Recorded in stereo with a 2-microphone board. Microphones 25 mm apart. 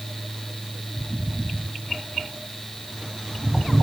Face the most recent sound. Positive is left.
No sound to turn to.